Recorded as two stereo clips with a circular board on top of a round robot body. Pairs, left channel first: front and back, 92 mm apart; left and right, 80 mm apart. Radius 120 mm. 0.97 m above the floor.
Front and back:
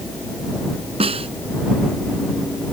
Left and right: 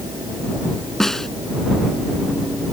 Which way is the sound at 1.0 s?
175° left.